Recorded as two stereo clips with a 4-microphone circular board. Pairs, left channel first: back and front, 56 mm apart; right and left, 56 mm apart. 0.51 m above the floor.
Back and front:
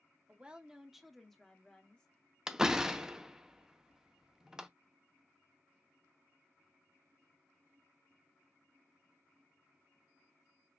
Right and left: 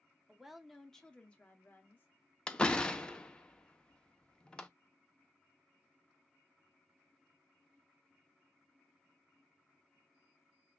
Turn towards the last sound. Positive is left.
turn(degrees=-55)